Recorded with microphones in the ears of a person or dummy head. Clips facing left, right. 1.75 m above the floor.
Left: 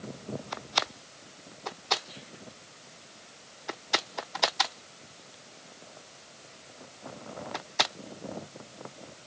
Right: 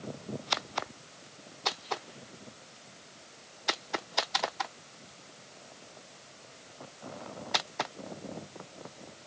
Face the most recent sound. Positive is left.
No sound to turn to.